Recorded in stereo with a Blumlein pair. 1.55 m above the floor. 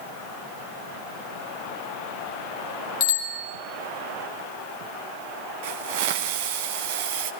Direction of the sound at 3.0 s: 35° left.